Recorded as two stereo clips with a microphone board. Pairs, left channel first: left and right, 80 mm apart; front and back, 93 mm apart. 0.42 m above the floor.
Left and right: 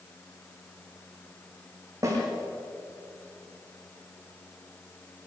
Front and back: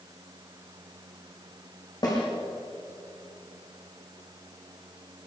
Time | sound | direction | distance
2.0 | a snare drum | 40° right | 8.5 m